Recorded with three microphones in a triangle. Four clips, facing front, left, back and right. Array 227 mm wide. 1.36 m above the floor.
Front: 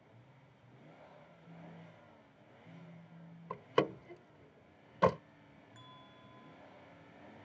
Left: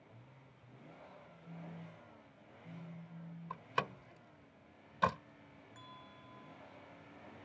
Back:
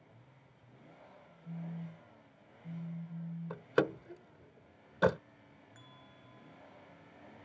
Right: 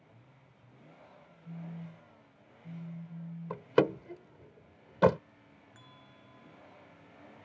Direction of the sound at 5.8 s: 120° right.